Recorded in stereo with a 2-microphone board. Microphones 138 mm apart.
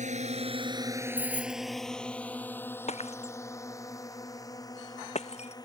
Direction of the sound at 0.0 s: 65° right (ahead or behind).